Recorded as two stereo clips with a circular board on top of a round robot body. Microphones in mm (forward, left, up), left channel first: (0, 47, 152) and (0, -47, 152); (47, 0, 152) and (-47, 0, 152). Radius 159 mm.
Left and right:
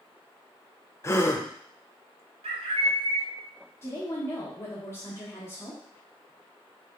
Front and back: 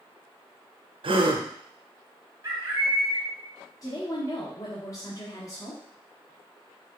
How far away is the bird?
About 1.6 m.